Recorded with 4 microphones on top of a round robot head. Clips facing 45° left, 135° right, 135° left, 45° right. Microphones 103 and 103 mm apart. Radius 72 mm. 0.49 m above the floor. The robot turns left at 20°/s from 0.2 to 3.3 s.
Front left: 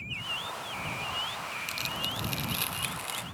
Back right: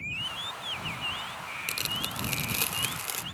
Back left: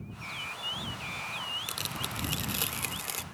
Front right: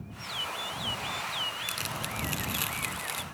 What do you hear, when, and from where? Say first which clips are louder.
1.7 s tearing paper: even, front right 2 dB; 150° right; by 3.2 s 175° left